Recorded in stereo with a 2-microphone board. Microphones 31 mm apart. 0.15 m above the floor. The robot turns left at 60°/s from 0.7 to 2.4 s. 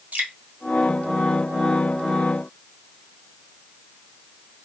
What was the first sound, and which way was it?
Dripping, 65° right (ahead or behind).